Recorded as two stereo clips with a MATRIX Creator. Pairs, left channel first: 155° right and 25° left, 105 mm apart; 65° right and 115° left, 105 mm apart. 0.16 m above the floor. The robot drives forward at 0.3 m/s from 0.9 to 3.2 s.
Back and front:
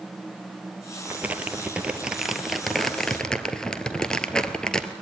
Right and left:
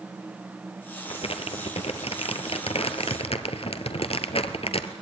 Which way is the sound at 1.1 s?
50° right.